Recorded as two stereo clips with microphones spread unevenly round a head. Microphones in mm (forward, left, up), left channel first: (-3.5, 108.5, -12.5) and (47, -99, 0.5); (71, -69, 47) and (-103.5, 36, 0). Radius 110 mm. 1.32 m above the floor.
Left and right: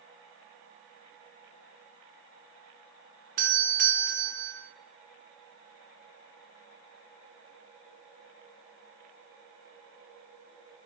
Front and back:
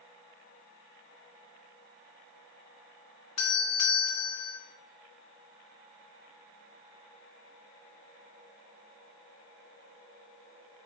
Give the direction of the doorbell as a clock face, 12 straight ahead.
1 o'clock.